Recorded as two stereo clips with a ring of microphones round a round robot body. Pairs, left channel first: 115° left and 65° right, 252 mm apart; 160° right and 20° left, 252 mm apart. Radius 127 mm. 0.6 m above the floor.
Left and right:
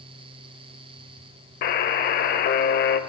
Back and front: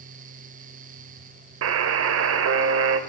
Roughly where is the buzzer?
Ahead left.